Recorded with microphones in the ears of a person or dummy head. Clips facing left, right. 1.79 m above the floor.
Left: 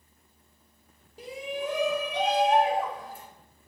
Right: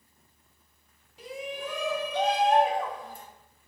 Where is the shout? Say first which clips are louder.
Left 3 dB; 30° left (ahead or behind), 1.2 m; by 3.2 s 5° left (ahead or behind), 2.5 m.